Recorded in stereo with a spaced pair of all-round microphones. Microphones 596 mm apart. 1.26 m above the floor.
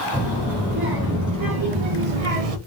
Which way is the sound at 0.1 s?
10° right (ahead or behind).